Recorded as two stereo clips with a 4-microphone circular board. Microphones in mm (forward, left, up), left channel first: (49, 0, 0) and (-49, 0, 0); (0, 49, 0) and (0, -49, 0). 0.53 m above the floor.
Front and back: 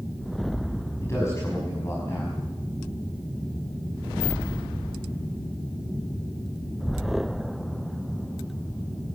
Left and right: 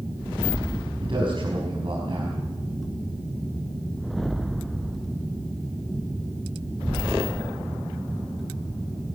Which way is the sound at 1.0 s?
60° right.